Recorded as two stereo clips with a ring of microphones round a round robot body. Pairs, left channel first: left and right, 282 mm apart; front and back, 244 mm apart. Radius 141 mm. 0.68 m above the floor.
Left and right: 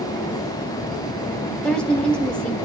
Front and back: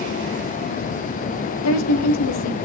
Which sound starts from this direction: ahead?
A woman speaking, at 1.6 s.